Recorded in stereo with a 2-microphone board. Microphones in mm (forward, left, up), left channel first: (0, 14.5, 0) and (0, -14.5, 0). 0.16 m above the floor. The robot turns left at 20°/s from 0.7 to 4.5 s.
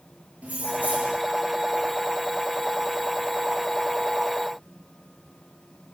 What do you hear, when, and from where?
0.4 s keys jangling: 65° right (ahead or behind), 2.5 m; by 1.2 s 70° right (ahead or behind), 2.5 m